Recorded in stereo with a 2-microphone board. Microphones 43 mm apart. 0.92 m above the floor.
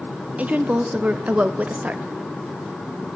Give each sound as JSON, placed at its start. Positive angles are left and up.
{"t": 0.4, "sound": "a woman speaking", "side_deg": -35, "distance_m": 0.5}